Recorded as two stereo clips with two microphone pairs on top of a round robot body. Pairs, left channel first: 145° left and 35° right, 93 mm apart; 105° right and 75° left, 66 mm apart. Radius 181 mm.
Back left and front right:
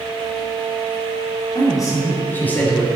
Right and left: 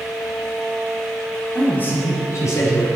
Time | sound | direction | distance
1.6 | a man speaking | 175° right | 3 m